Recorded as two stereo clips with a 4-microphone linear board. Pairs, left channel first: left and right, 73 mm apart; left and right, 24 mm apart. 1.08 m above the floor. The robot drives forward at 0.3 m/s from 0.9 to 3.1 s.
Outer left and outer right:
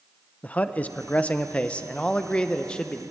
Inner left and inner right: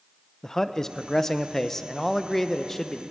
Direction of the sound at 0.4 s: 20° left (ahead or behind).